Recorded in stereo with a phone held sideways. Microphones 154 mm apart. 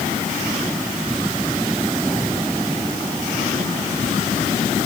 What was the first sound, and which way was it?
Only background noise.